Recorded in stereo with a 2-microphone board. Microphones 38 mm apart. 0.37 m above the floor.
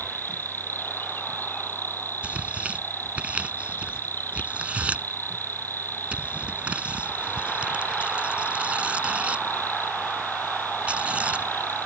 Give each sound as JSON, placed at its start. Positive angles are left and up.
{"t": 0.0, "sound": "an insect", "side_deg": 70}
{"t": 2.2, "sound": "tearing paper", "side_deg": -35}